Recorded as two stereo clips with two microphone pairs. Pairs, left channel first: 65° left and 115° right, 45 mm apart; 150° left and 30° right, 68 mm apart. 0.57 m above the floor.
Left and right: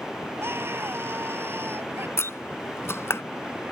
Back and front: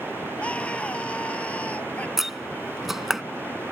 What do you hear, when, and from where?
0.4 s a scream: 140° right
2.2 s a door slam: 55° left